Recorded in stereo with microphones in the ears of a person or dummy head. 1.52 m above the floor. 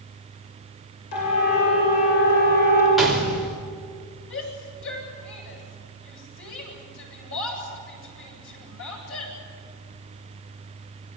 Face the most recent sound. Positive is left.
turn(degrees=75)  # may be behind; listen again after turning